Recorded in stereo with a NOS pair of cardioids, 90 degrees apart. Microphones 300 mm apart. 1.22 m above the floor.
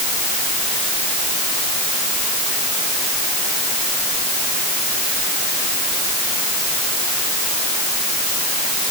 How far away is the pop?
No pop in this recording.